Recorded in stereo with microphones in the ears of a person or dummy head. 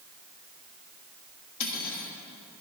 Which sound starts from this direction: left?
Cutlery clinking, at 1.6 s.